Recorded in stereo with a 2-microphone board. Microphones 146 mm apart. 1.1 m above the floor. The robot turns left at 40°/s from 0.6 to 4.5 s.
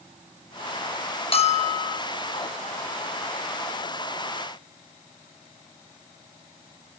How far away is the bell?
About 1.1 m.